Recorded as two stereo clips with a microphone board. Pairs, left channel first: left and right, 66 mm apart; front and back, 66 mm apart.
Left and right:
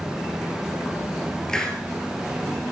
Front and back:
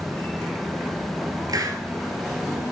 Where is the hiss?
170° left, 2 m.